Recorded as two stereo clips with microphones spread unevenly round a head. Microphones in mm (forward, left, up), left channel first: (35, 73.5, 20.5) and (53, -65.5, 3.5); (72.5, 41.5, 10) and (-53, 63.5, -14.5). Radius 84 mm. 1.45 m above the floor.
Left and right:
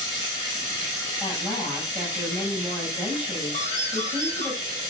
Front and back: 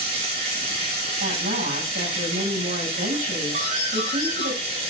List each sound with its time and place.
0.0 s running water: 150° right, 5.5 m
1.2 s a woman speaking: 170° right, 9 m
3.5 s a doorbell: 155° left, 4.5 m